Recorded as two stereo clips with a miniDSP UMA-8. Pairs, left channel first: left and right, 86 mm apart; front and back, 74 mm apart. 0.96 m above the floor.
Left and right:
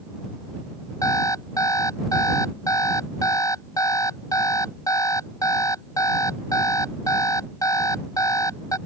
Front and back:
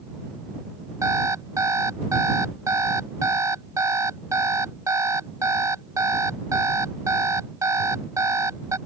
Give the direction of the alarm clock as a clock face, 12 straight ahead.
7 o'clock.